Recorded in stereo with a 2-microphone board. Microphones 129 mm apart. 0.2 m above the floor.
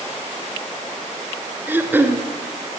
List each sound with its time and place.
1.7 s throat clearing: 15° right (ahead or behind), 1.7 m